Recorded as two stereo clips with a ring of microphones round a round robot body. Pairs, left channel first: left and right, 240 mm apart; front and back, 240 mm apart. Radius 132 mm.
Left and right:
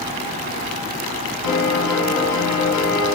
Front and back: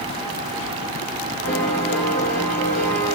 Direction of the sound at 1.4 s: 85° left.